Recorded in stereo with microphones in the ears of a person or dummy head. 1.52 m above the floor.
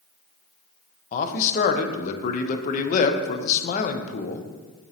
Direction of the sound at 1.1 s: 45° left (ahead or behind).